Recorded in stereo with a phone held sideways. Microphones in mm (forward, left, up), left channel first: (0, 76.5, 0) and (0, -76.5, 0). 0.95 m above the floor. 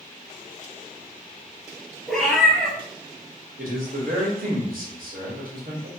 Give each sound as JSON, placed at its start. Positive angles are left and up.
{"t": 2.1, "sound": "a cat meowing", "side_deg": 5, "distance_m": 2.0}
{"t": 3.6, "sound": "a man speaking", "side_deg": -65, "distance_m": 1.4}